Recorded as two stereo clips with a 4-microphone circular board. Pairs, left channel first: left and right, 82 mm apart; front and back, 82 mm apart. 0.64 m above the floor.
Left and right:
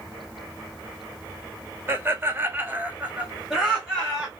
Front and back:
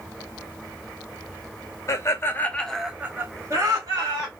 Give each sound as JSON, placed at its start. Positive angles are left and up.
{"t": 1.9, "sound": "laughter", "azimuth_deg": -35, "distance_m": 0.8}